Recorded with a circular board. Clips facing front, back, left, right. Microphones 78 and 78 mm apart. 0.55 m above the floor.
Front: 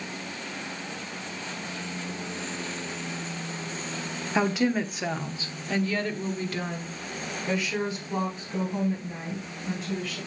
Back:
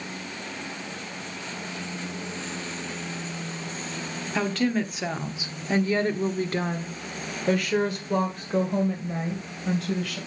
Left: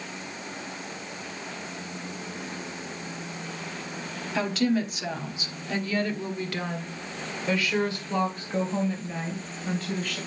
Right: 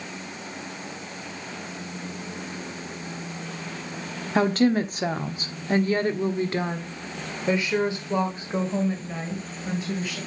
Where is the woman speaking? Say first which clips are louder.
Front 1 dB, right 5 dB; 65° right, 1.1 m; by 10.2 s 170° right, 3 m.